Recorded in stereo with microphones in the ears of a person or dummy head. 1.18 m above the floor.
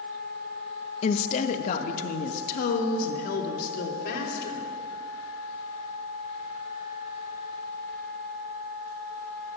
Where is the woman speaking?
40° left (ahead or behind), 0.8 m; by 4.6 s 55° left (ahead or behind), 3.5 m.